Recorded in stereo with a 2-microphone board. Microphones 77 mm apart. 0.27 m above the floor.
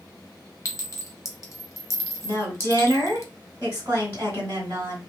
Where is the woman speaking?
25° right (ahead or behind), 1.5 m.